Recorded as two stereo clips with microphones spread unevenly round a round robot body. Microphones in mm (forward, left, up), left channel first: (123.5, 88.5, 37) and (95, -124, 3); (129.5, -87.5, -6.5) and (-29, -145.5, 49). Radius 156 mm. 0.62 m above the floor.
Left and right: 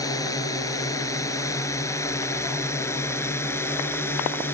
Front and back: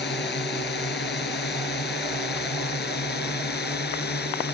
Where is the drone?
10° left; by 4.5 s 5° left.